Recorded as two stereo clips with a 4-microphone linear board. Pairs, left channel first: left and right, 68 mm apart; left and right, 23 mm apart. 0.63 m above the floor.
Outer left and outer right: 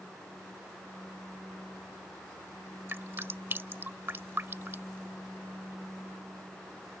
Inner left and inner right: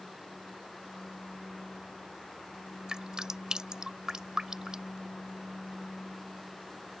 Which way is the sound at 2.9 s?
35° right (ahead or behind).